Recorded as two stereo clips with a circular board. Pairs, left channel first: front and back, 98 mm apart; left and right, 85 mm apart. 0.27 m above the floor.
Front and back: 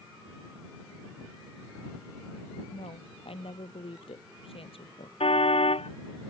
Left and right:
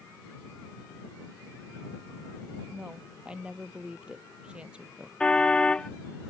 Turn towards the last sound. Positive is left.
turn(degrees=10)